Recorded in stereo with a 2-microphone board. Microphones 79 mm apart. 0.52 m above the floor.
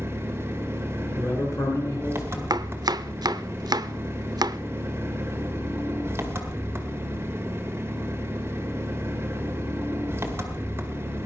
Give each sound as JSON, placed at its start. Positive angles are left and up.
{"t": 0.0, "sound": "an engine running", "side_deg": -30, "distance_m": 1.9}
{"t": 1.2, "sound": "a man speaking", "side_deg": 35, "distance_m": 6.5}
{"t": 2.5, "sound": "chopping", "side_deg": -60, "distance_m": 0.6}